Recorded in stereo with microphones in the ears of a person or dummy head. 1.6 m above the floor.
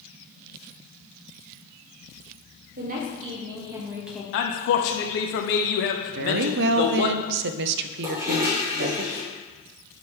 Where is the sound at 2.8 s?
45° right (ahead or behind), 2 m; by 4.2 s 5° left (ahead or behind), 1.3 m.